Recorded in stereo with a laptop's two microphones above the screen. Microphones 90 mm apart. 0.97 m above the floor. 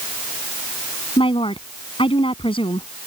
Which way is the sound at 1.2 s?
80° left.